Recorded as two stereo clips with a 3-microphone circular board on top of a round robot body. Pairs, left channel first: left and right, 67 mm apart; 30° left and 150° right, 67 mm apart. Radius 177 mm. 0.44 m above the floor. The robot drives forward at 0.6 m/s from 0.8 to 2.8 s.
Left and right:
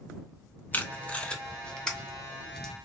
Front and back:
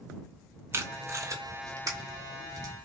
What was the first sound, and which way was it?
Tape being pulled, 155° left.